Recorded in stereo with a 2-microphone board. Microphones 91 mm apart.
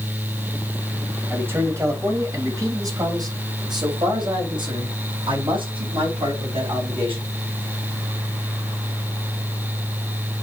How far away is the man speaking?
About 3 m.